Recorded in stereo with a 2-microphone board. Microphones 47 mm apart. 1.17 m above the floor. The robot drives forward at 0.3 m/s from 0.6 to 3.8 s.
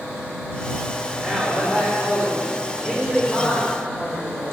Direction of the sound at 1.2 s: 20° left (ahead or behind).